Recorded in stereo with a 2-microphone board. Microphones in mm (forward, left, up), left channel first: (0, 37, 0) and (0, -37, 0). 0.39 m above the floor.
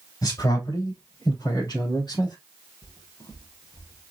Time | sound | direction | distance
0.2 | a man speaking | 60° left (ahead or behind) | 3 m
2.8 | footsteps | 75° left (ahead or behind) | 3.5 m